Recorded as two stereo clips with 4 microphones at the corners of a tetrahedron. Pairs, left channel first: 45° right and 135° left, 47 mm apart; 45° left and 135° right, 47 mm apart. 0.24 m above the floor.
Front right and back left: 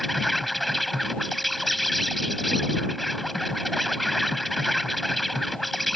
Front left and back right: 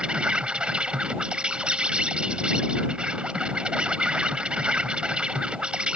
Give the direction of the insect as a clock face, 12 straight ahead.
4 o'clock.